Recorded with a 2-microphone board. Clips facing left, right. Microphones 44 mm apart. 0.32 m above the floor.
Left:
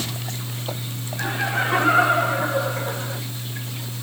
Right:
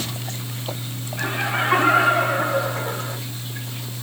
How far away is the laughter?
About 8 m.